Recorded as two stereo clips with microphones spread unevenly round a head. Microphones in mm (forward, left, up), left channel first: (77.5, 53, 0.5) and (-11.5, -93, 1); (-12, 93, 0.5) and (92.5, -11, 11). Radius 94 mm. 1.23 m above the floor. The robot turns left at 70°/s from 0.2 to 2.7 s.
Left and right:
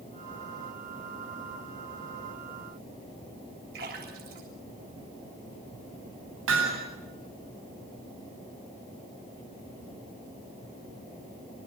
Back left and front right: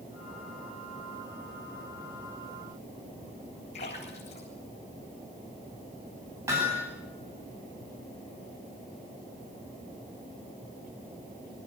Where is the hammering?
120° right, 8.5 m.